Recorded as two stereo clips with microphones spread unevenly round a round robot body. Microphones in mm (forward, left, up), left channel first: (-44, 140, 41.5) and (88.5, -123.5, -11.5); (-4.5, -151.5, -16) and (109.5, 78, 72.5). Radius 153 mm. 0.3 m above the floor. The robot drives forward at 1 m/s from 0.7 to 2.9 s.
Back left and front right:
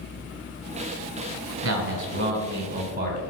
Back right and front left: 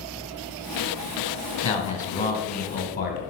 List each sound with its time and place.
1.6 s a man speaking: 60° right, 2 m; by 3.2 s 110° right, 2 m